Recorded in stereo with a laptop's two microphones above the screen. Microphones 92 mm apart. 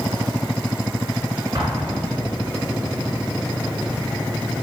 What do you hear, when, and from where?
1.6 s an explosion: 60° right (ahead or behind), 1.8 m